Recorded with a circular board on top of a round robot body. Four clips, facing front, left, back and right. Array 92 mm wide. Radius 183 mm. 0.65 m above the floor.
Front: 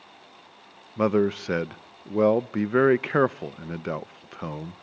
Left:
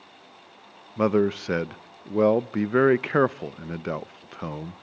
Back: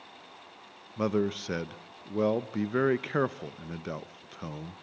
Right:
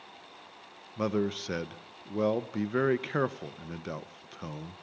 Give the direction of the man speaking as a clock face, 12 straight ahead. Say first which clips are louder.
Left 8 dB, front 6 dB; 10 o'clock.